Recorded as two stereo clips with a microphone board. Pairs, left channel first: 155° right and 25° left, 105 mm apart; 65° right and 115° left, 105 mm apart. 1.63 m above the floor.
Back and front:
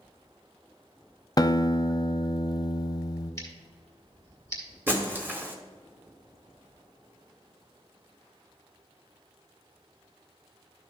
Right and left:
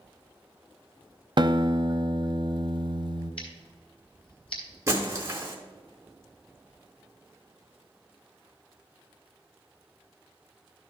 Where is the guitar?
150° left, 0.5 m.